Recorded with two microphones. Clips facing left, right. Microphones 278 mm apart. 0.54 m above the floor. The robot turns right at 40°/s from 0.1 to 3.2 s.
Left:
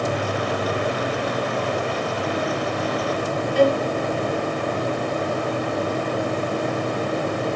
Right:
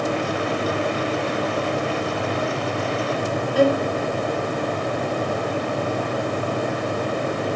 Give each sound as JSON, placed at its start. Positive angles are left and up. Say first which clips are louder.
{"t": 3.5, "sound": "a violin", "louder": "even", "side_deg": 0, "distance_m": 1.0}